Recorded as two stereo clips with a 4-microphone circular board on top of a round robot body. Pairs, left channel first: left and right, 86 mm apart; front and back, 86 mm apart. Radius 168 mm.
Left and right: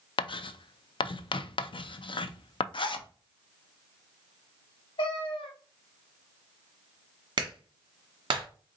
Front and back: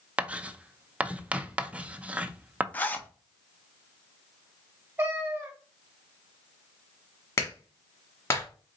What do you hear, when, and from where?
0.2 s writing: 105° left, 0.5 m
2.7 s a zipper: 70° left, 0.7 m
5.0 s a cat meowing: 110° left, 0.9 m
7.4 s a clap: 55° right, 1.5 m